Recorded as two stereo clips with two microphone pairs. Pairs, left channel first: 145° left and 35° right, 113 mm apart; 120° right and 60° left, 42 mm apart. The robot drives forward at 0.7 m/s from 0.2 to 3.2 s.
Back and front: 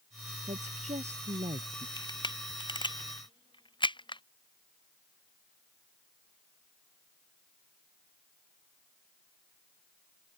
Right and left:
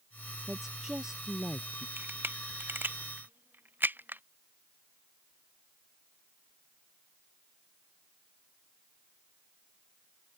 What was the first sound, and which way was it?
A woman speaking, 25° right.